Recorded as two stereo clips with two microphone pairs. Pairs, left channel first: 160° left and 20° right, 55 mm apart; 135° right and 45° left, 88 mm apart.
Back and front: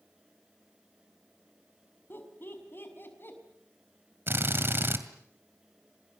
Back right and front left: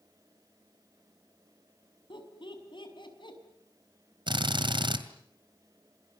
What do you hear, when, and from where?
2.1 s laughter: 155° right, 5.5 m
4.3 s a drill: 25° left, 2 m